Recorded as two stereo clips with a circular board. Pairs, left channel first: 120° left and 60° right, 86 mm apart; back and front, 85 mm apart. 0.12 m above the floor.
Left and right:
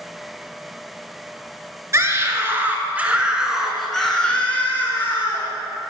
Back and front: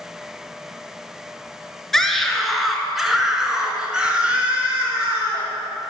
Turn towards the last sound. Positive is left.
turn(degrees=70)